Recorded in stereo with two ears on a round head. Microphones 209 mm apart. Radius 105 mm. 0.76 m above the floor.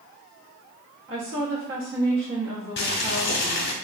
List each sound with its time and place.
1.1 s a woman speaking: 55° right (ahead or behind), 0.9 m
2.8 s boiling: 45° left (ahead or behind), 0.7 m